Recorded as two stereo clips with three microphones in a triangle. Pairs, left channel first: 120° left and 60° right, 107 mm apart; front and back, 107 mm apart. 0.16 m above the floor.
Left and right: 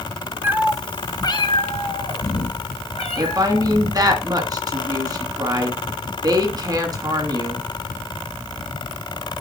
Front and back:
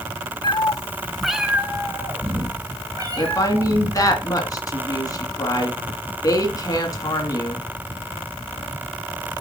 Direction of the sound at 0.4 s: Straight ahead.